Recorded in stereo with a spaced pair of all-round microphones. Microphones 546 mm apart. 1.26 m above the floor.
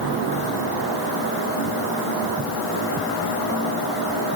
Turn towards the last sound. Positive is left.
No sound to turn to.